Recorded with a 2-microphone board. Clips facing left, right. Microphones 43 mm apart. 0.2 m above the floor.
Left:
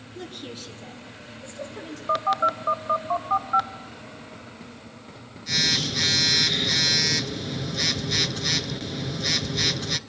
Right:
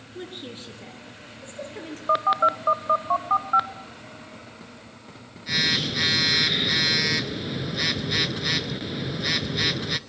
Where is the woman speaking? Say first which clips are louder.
Even; 20° right (ahead or behind), 3 m; by 2.0 s 40° right (ahead or behind), 5 m.